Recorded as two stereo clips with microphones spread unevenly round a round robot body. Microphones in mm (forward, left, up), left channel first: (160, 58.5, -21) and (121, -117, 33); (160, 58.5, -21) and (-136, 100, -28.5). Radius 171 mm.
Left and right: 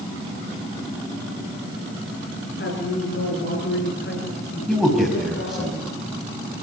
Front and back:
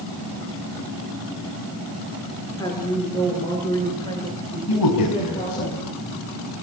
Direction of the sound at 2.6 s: 70° left.